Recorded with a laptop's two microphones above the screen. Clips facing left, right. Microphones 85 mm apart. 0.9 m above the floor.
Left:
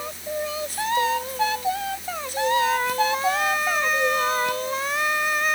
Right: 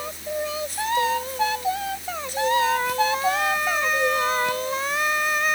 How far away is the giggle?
I don't hear a giggle.